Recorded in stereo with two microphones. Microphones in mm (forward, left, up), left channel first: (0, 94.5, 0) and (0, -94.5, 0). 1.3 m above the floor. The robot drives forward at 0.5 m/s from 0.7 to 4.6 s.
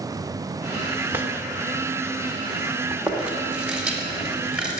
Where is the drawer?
10° right (ahead or behind), 1.6 m; by 1.3 s 15° right (ahead or behind), 1.5 m.